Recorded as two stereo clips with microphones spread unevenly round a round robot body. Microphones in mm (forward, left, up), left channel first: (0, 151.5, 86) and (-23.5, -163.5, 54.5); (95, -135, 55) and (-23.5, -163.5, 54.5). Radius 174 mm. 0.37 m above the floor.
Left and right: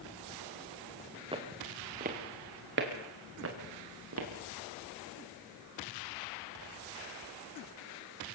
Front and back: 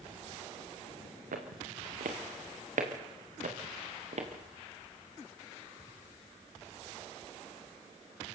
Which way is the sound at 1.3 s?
170° right.